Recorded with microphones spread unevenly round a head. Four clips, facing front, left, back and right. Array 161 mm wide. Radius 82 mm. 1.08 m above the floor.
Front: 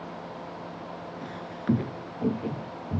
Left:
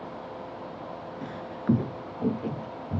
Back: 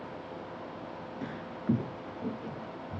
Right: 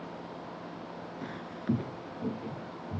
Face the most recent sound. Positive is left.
turn(degrees=35)